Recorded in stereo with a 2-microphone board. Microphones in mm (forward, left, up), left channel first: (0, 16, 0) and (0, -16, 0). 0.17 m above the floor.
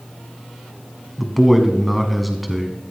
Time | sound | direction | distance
1.2 | a man speaking | centre (ahead or behind) | 1.0 m